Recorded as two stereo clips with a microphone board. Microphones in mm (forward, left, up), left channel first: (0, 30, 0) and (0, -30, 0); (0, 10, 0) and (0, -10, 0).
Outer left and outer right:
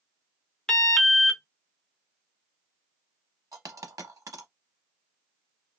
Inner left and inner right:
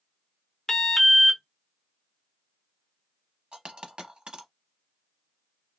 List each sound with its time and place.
0.7 s an alarm: 10° left (ahead or behind), 0.6 m
3.5 s a dropped coin: 75° right (ahead or behind), 0.6 m